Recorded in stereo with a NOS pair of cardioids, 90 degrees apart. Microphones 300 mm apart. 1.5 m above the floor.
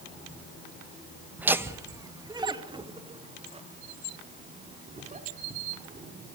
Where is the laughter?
5° right, 1.9 m; by 6.1 s 25° right, 5.5 m.